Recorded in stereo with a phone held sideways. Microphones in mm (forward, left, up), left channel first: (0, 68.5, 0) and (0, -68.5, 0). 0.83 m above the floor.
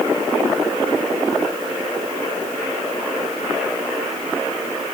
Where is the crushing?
I don't hear crushing.